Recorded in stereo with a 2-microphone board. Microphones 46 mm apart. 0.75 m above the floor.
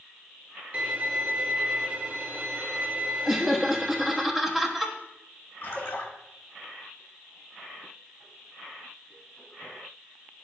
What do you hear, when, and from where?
0.7 s a violin: 35° right (ahead or behind), 0.7 m
3.2 s laughter: 10° right (ahead or behind), 1.0 m
5.6 s a splash: 55° left (ahead or behind), 1.7 m